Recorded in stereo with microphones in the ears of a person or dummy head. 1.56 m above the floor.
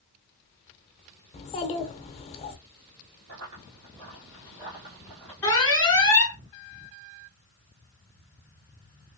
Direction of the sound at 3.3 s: 45° right (ahead or behind).